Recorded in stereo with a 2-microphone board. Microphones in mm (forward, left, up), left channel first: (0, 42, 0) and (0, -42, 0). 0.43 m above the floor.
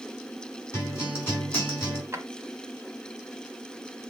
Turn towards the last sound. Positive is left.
turn(degrees=-40)  # may be behind; listen again after turning